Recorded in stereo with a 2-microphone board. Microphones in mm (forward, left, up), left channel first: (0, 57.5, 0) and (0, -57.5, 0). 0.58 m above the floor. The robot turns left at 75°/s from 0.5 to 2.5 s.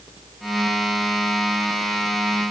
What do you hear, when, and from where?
Only background noise.